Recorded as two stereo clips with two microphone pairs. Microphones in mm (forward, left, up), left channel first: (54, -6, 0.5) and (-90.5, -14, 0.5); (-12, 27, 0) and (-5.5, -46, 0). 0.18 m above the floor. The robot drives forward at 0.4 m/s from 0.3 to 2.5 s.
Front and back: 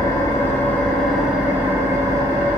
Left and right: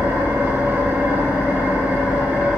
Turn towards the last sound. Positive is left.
turn(degrees=-150)